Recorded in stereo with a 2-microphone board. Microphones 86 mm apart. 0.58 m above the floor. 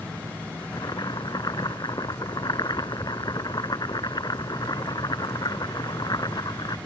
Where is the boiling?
50° left (ahead or behind).